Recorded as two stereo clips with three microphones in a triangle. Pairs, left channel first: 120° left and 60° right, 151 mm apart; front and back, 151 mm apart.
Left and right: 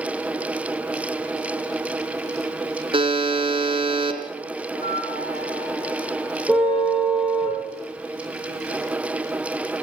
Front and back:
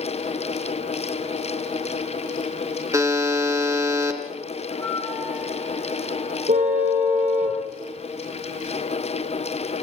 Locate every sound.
2.9 s a buzzer: 110° right, 2.5 m
4.7 s a flute: 75° left, 7 m
6.5 s a car horn: 155° right, 8 m